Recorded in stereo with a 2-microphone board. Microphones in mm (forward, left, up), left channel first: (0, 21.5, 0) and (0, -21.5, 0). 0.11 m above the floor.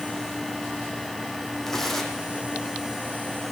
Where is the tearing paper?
5° left (ahead or behind), 5 m.